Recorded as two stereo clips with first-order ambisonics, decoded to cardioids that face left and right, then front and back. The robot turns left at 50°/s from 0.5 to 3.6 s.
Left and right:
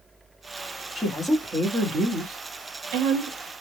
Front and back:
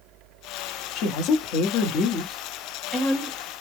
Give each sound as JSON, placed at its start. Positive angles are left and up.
{"t": 0.9, "sound": "a woman speaking", "azimuth_deg": 10, "distance_m": 0.9}